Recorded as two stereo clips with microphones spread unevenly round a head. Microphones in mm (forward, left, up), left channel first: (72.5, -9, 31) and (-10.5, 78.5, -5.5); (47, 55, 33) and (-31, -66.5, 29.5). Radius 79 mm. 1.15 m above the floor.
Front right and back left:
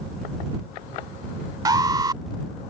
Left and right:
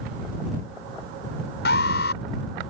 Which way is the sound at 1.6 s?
75° left.